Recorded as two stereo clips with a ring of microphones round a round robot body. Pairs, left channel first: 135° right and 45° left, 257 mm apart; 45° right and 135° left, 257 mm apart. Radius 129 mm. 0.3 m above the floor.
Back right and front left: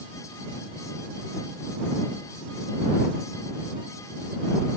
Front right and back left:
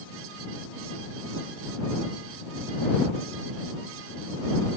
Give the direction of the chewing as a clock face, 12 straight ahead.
I don't hear chewing.